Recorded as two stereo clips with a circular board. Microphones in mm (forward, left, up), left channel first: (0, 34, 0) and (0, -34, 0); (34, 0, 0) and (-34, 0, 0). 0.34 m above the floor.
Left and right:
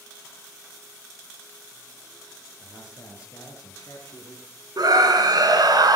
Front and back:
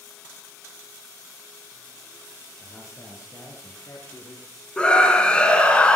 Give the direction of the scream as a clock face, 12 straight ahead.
2 o'clock.